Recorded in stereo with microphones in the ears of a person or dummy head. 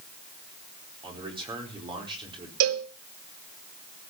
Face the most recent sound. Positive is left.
turn(degrees=-80)